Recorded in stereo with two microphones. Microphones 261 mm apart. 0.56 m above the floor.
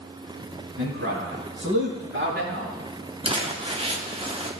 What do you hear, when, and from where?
0.8 s a man speaking: 50° right (ahead or behind), 4.5 m; by 2.8 s 45° right (ahead or behind), 5.5 m
3.2 s crumpling: 20° right (ahead or behind), 1.1 m